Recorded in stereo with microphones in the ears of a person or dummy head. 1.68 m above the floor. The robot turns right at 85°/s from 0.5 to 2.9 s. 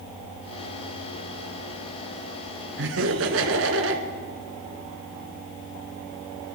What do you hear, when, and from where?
2.8 s laughter: 60° right (ahead or behind), 2 m; by 4.0 s 70° right (ahead or behind), 2 m